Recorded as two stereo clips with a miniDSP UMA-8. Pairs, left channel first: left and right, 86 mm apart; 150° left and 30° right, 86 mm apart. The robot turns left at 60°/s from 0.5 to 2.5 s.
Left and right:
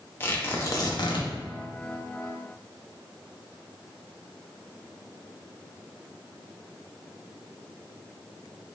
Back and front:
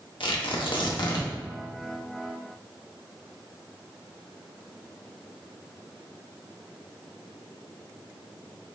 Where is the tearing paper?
150° left, 0.7 m; by 1.3 s 105° left, 0.7 m.